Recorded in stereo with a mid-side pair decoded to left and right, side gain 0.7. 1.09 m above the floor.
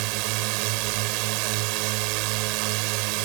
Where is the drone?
70° right.